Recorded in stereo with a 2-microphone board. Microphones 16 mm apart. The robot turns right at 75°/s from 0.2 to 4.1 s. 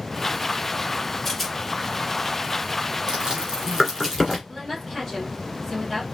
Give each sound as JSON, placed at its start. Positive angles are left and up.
{"t": 1.2, "sound": "a rattle", "side_deg": 25, "distance_m": 1.0}
{"t": 3.1, "sound": "chewing", "side_deg": -55, "distance_m": 2.0}
{"t": 4.5, "sound": "a woman speaking", "side_deg": 10, "distance_m": 2.0}